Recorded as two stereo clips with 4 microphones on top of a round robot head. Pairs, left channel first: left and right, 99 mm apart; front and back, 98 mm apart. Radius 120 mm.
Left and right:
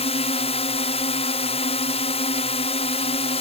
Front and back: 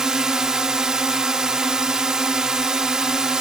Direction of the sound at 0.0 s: 95° left.